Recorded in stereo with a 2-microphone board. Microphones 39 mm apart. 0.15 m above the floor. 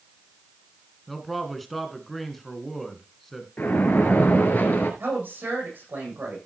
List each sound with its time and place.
1.1 s a man speaking: 5° left (ahead or behind), 1.9 m
3.6 s a splash: 60° left (ahead or behind), 2.5 m
5.0 s a woman speaking: 60° right (ahead or behind), 8 m